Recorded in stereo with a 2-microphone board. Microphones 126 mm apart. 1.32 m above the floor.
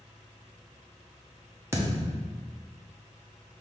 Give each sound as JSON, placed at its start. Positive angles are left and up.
{"t": 1.7, "sound": "a thud", "side_deg": -20, "distance_m": 0.8}